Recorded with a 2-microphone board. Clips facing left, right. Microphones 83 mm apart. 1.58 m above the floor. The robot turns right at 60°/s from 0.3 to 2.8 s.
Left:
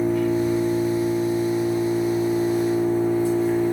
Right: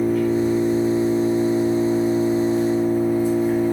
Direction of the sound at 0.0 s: Straight behind.